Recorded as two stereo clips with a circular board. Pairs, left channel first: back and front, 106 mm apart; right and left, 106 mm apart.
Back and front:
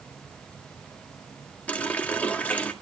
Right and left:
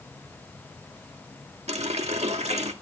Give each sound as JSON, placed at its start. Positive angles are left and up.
{"t": 1.7, "sound": "a running tap", "azimuth_deg": 100, "distance_m": 1.6}